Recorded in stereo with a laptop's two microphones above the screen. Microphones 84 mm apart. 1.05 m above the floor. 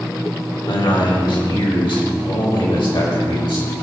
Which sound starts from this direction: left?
A man speaking, at 0.7 s.